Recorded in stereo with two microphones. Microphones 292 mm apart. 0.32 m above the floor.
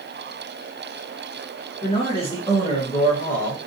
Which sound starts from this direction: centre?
A man speaking, at 1.8 s.